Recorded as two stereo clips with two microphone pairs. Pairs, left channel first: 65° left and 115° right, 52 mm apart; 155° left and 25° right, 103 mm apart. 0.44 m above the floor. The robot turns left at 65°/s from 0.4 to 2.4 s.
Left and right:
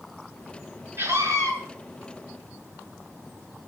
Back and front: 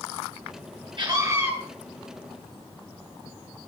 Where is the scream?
65° right, 7.5 m; by 1.5 s 100° right, 7.5 m.